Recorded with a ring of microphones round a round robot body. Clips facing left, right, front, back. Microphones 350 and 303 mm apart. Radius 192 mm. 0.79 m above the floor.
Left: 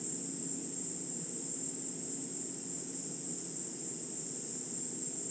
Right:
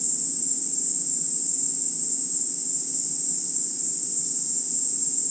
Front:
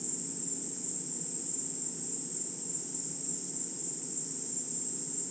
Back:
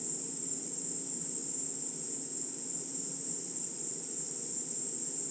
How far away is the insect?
About 0.9 m.